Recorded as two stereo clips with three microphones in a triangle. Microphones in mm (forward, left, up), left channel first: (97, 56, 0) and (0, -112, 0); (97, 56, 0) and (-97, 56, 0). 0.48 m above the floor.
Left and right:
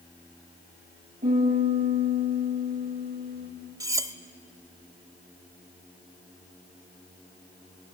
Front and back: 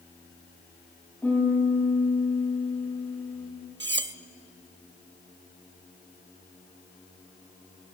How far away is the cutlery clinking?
About 0.6 m.